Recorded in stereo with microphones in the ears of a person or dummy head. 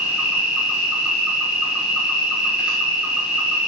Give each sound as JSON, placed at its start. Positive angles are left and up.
{"t": 0.0, "sound": "an insect", "side_deg": -5, "distance_m": 5.5}